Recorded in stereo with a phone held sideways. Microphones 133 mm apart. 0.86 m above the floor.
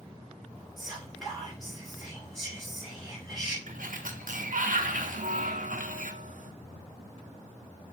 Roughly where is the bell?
Right.